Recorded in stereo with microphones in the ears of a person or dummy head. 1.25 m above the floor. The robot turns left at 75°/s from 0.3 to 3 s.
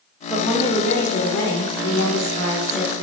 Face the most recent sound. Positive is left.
turn(degrees=-20)